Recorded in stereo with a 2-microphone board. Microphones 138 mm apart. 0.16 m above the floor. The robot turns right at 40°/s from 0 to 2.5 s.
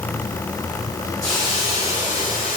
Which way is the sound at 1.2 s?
25° left.